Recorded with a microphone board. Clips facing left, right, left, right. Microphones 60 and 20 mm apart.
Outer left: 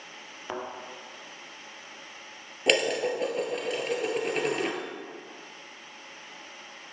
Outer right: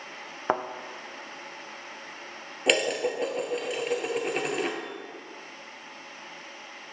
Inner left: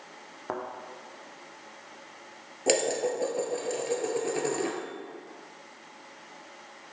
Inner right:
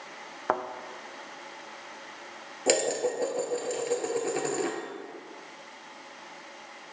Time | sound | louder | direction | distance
0.5 | a thud | outer right 8 dB, inner right 6 dB | 45° right (ahead or behind) | 1.0 m
2.7 | dishes clattering | even, even | centre (ahead or behind) | 1.1 m